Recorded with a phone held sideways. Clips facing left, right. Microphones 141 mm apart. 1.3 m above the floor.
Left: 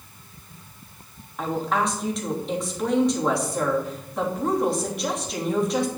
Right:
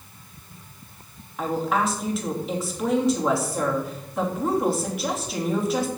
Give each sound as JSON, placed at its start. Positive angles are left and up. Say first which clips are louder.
{"t": 1.4, "sound": "a woman speaking", "louder": "right 1 dB", "side_deg": -5, "distance_m": 3.0}